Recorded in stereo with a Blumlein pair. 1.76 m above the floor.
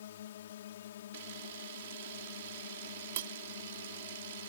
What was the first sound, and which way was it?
A drone, 60° left.